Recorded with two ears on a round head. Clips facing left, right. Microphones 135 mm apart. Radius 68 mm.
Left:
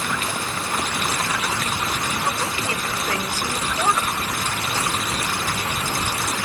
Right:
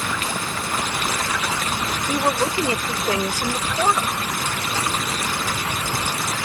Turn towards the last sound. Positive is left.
turn(degrees=-10)  # may be behind; listen again after turning